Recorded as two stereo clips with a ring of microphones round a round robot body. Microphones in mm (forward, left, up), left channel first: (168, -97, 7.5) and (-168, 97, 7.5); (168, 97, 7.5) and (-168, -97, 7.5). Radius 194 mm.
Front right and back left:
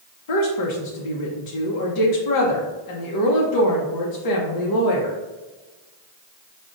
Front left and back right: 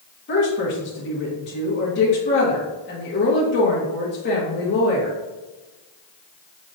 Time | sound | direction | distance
0.3 | a woman speaking | 25° right | 0.7 m